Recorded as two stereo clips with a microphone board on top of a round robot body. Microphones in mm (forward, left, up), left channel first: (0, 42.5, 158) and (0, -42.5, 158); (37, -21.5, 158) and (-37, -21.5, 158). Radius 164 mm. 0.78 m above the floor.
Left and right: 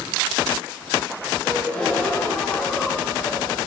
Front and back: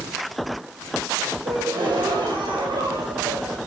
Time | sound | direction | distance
1.4 | a gasp | 165° left | 6 m